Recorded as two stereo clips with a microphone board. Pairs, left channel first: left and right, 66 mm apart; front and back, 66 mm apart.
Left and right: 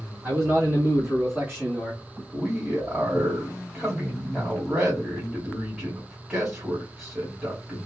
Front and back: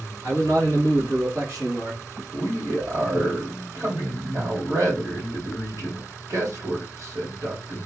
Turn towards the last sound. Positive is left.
turn(degrees=-160)